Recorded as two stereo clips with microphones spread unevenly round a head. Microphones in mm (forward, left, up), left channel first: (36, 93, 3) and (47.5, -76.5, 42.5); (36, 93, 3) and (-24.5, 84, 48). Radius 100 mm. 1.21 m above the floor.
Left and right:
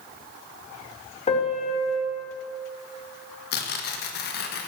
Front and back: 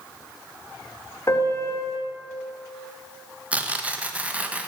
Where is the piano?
40° left, 4 m.